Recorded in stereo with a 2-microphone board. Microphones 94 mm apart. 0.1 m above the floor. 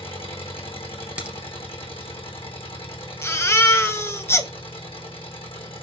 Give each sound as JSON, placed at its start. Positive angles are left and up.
{"t": 0.0, "sound": "an engine running", "side_deg": 80, "distance_m": 2.0}
{"t": 1.2, "sound": "a crack", "side_deg": -15, "distance_m": 2.5}
{"t": 3.2, "sound": "a baby crying", "side_deg": 25, "distance_m": 0.9}